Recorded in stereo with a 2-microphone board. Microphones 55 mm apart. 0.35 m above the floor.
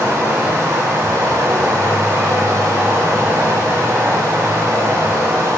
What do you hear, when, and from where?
0.0 s running water: 70° right (ahead or behind), 0.7 m